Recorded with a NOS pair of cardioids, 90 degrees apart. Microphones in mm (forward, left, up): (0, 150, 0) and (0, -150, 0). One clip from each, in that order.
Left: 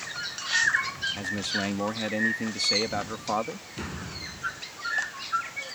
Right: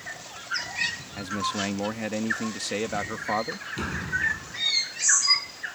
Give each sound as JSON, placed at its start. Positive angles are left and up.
{"t": 1.2, "sound": "a man speaking", "azimuth_deg": -5}
{"t": 3.8, "sound": "a door slam", "azimuth_deg": -30}